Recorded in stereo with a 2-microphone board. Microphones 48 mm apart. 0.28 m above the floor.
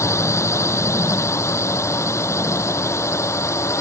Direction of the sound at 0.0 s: 80° left.